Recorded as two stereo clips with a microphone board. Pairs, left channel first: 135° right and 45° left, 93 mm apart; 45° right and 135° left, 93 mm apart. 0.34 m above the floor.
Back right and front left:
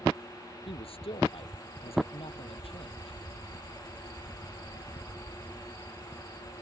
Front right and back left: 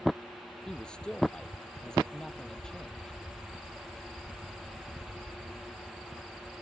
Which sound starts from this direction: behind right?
A man speaking, at 0.7 s.